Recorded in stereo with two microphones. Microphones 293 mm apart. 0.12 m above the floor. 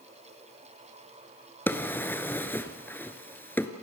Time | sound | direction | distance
1.7 | a drawer | 5° left (ahead or behind) | 1.3 m